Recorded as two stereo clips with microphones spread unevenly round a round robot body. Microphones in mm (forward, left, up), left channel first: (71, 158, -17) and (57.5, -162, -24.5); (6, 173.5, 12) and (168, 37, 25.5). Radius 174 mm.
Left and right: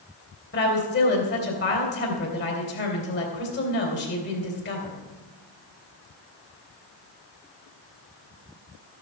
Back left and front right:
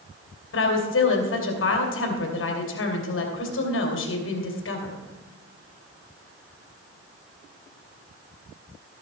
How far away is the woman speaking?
About 2.5 m.